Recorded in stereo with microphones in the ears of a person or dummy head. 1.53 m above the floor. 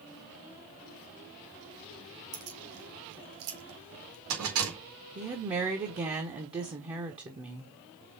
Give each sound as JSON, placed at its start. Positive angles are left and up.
{"t": 2.3, "sound": "keys jangling", "side_deg": -75, "distance_m": 2.0}
{"t": 5.2, "sound": "a woman speaking", "side_deg": -25, "distance_m": 0.9}